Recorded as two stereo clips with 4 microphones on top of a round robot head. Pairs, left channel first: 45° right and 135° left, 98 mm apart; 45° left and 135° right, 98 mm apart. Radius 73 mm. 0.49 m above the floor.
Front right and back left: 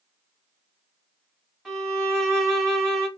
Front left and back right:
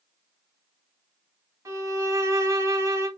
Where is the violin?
140° right, 1.5 m.